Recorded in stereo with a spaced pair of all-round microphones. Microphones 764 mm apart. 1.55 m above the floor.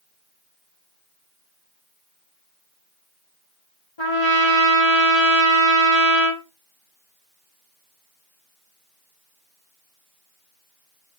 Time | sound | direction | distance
4.0 | a trumpet | 40° left (ahead or behind) | 1.2 m